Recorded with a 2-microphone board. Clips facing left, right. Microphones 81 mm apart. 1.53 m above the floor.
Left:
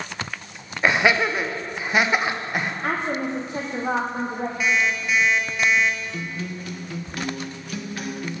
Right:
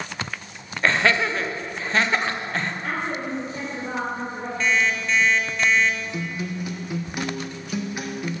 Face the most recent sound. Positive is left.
turn(degrees=-15)  # may be behind; listen again after turning